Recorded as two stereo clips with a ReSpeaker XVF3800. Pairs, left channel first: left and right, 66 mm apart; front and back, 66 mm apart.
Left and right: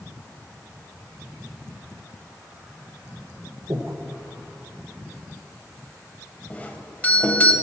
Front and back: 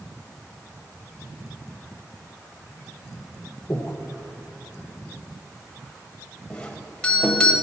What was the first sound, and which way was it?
Breathing, 60° right.